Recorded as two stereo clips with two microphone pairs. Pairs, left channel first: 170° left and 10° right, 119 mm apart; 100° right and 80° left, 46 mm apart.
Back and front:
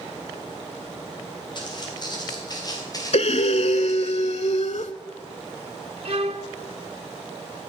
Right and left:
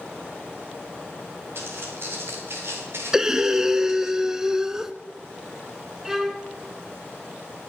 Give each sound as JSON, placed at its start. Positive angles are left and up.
{"t": 1.6, "sound": "footsteps", "azimuth_deg": 120, "distance_m": 5.5}
{"t": 3.1, "sound": "breathing", "azimuth_deg": 160, "distance_m": 0.5}
{"t": 6.0, "sound": "a violin", "azimuth_deg": 0, "distance_m": 0.7}